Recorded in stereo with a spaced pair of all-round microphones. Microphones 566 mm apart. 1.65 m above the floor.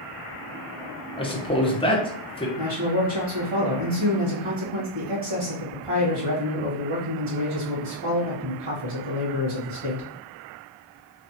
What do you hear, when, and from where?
1.2 s a man speaking: 10° left (ahead or behind), 0.8 m
2.6 s a man speaking: 60° right (ahead or behind), 1.6 m